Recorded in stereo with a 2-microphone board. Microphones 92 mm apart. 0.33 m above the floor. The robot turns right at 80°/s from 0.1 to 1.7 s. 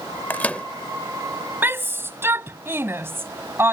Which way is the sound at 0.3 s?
20° left (ahead or behind).